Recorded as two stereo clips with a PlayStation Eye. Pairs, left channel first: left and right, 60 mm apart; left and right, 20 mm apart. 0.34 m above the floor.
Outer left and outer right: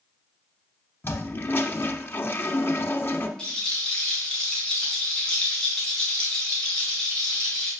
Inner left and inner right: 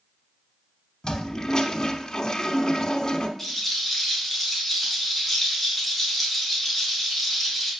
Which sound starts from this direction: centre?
A rattle, at 3.4 s.